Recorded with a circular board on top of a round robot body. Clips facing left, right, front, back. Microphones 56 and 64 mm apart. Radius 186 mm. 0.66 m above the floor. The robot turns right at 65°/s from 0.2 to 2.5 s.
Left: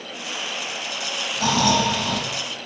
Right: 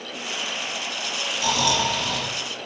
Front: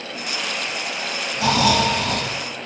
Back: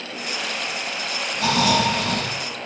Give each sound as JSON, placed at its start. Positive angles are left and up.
{"t": 1.4, "sound": "snoring", "azimuth_deg": 75, "distance_m": 6.5}